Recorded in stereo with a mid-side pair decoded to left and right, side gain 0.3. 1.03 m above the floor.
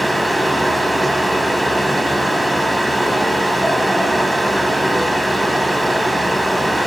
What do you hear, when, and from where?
0.0 s a fan: 15° right, 3 m